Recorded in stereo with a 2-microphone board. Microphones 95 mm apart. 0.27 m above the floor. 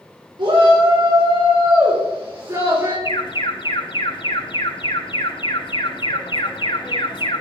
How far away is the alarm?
About 3 m.